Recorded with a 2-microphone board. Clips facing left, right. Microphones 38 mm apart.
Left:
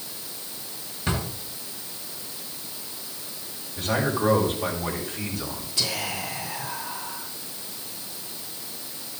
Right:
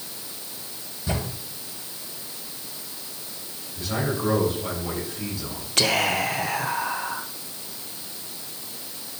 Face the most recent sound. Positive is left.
turn(degrees=-60)  # may be behind; listen again after turning